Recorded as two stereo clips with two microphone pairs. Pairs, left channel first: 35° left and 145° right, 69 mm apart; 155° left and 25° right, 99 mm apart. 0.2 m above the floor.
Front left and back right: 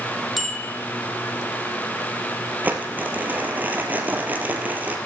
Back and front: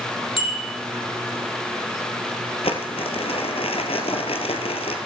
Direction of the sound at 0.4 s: 130° left.